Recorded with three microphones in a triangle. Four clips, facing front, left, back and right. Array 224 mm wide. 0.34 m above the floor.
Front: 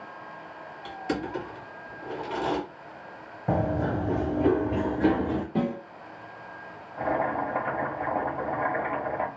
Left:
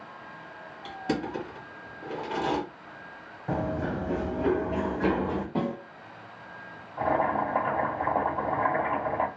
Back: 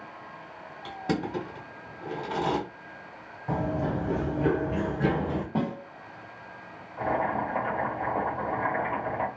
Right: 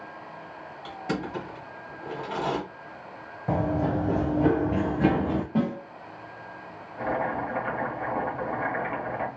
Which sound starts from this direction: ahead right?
Running footsteps, at 3.5 s.